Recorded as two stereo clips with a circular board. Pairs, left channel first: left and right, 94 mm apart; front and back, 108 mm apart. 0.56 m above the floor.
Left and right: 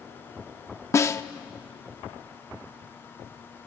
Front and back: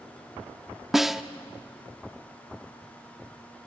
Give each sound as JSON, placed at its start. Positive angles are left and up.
{"t": 0.9, "sound": "a snare drum", "azimuth_deg": 95, "distance_m": 0.6}